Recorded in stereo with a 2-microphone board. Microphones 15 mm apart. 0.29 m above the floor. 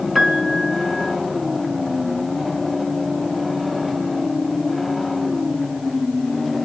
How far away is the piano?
About 3 m.